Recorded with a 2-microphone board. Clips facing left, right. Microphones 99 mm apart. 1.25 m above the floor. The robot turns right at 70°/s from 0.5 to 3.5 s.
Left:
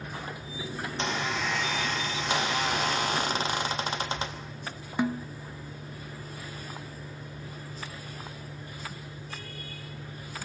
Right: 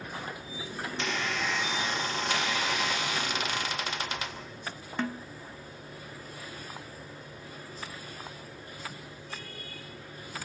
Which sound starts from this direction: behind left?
A squeak, at 0.8 s.